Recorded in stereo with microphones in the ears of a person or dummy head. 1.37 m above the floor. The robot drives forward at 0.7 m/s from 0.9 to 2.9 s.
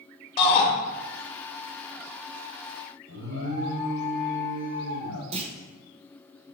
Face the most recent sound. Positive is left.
turn(degrees=-30)  # may be behind; listen again after turning